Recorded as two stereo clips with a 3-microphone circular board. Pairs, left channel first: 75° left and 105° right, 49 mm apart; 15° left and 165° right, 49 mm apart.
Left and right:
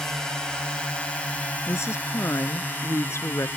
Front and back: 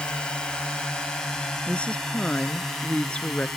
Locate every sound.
0.0 s a drone: 20° left; by 3.6 s 95° left
1.7 s a woman speaking: 80° left